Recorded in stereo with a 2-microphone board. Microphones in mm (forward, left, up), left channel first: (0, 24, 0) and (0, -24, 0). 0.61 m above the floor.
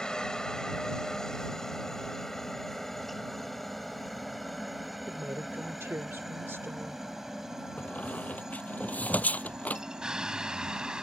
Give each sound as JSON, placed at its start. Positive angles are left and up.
{"t": 0.0, "sound": "a helicopter", "side_deg": 15}
{"t": 5.1, "sound": "a woman speaking", "side_deg": -65}
{"t": 7.8, "sound": "a squeak", "side_deg": 35}